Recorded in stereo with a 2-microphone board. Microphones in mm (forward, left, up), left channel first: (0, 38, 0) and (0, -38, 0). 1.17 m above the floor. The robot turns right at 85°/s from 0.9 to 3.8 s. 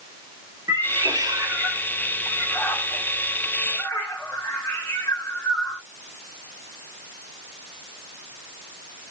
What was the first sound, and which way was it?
A cat meowing, 65° right (ahead or behind).